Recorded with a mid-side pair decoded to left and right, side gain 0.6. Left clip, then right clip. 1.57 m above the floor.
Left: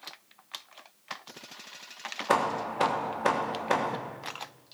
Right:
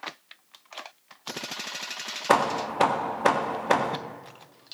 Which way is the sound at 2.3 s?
30° right.